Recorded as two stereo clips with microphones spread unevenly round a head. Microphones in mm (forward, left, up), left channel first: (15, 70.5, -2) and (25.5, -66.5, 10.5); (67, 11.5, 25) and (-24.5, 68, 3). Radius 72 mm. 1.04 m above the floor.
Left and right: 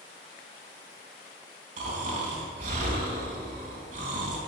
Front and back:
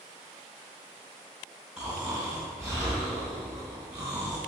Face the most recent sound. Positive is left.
turn(degrees=-125)